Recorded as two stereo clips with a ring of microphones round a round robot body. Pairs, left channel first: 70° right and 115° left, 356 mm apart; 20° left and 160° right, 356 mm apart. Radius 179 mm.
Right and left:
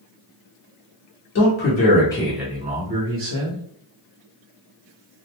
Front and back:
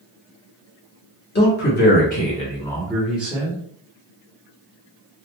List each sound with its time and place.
1.4 s a man speaking: 25° right, 1.2 m; by 3.6 s 125° left, 1.2 m